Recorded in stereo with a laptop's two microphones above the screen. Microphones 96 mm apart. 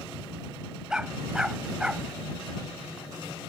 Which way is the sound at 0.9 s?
10° right (ahead or behind).